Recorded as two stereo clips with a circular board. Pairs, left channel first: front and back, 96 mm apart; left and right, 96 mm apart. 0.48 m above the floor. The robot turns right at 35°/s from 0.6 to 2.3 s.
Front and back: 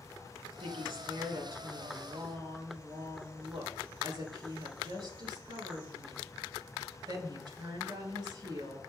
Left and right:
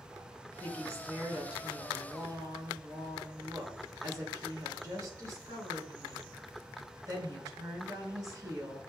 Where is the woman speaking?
160° left, 5 m; by 8.8 s 140° right, 5 m.